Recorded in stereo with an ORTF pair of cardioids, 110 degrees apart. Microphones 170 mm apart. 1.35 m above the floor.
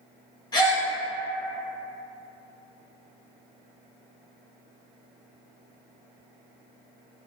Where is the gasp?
25° left, 1.1 m.